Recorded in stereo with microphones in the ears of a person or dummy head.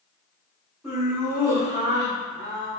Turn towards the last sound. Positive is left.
turn(degrees=-60)  # may be behind; listen again after turning